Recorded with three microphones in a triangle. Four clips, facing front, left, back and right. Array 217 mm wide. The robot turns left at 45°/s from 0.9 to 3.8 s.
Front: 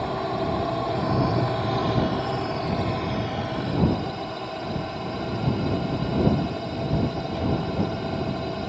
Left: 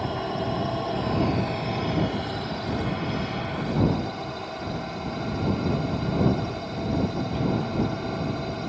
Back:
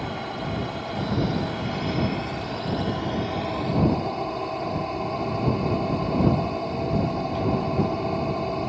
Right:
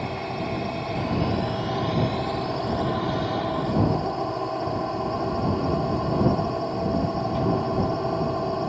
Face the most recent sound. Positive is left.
turn(degrees=-115)